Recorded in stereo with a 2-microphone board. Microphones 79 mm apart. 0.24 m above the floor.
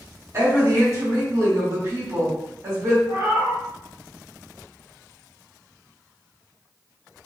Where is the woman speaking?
35° right (ahead or behind), 1.7 m.